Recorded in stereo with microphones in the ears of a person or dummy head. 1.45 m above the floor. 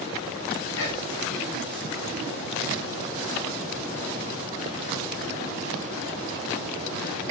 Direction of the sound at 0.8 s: 65° left (ahead or behind).